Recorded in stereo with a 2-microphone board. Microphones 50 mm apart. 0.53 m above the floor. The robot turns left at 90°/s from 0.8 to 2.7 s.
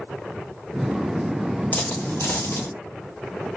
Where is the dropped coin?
35° left (ahead or behind), 1.1 m; by 2.7 s 50° left (ahead or behind), 1.1 m.